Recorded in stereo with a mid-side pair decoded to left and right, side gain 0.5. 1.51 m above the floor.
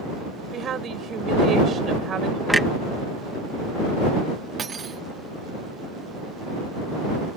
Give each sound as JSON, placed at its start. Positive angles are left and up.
{"t": 0.5, "sound": "a woman speaking", "azimuth_deg": -50}
{"t": 2.5, "sound": "a clunk", "azimuth_deg": -5}
{"t": 4.6, "sound": "cutlery clinking", "azimuth_deg": -40}